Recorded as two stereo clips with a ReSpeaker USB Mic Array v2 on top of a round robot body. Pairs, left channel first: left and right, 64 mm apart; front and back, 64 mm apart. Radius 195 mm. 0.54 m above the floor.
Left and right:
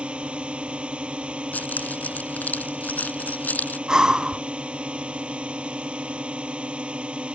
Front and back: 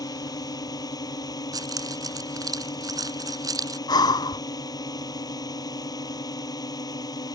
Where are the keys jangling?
155° left.